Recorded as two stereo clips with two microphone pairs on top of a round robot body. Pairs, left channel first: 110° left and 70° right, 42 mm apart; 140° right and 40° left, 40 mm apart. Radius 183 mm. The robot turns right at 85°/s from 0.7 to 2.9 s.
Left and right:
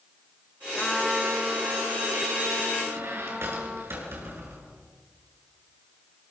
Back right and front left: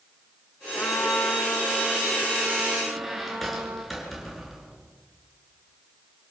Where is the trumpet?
175° left, 2 m; by 3.8 s straight ahead, 2 m.